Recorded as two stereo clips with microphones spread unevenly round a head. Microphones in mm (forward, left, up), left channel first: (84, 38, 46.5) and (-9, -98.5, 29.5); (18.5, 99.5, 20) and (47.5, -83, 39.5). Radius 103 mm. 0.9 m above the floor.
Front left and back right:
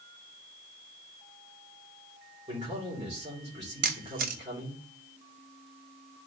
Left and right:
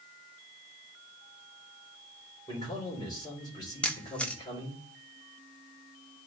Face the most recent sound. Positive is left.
turn(degrees=-175)